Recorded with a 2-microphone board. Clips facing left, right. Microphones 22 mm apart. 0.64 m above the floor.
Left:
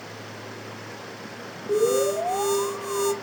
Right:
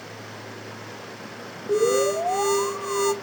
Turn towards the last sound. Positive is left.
turn(degrees=-20)  # may be behind; listen again after turning